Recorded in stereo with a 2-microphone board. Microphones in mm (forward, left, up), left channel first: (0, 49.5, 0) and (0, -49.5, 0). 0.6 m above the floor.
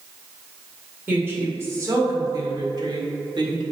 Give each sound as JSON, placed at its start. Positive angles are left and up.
{"t": 1.1, "sound": "a woman speaking", "side_deg": -20, "distance_m": 1.9}